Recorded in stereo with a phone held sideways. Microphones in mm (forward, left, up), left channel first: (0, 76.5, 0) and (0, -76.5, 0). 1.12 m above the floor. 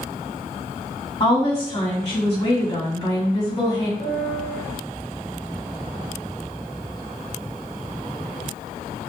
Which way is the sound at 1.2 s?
35° left (ahead or behind).